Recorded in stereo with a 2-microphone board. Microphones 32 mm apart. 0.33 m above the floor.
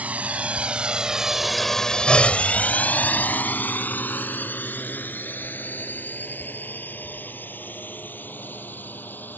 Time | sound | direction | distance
0.0 | a drone | 50° right (ahead or behind) | ?